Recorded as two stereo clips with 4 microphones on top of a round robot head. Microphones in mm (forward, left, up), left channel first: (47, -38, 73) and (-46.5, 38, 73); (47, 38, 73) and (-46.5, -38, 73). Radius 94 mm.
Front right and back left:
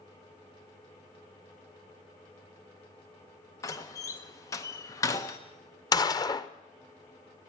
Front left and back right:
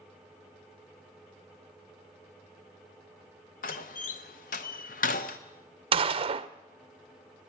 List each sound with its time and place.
3.6 s a door slam: 25° left, 0.7 m
5.9 s a gunshot: 100° right, 0.6 m